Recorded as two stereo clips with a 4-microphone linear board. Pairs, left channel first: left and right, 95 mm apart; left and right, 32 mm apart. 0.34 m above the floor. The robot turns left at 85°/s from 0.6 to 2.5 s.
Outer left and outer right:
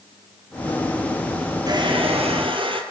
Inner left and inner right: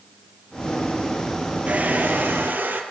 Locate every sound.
1.7 s a hair dryer: 45° right, 3.5 m; by 2.8 s 115° right, 3.5 m